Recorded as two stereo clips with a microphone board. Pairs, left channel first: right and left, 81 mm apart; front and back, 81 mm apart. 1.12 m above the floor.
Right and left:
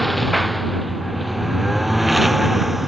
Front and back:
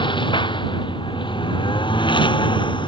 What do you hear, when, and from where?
0.0 s a lawn mower: straight ahead; by 2.9 s 5° left